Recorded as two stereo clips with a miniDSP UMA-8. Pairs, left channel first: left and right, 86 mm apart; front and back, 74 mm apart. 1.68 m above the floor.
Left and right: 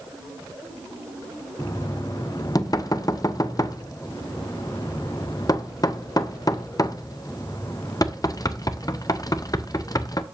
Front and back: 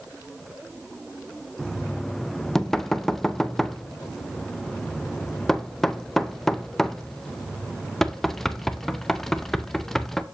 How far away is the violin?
I don't hear a violin.